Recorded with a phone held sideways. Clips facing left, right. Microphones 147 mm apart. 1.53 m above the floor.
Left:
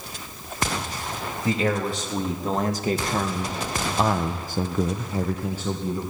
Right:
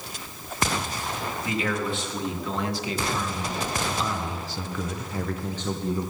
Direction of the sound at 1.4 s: 40° left (ahead or behind).